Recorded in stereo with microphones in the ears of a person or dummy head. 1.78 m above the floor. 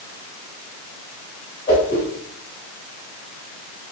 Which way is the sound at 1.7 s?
5° left (ahead or behind).